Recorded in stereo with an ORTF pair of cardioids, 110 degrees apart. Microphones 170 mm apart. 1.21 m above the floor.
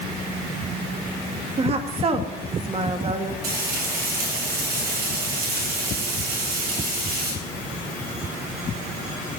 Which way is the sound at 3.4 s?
70° right.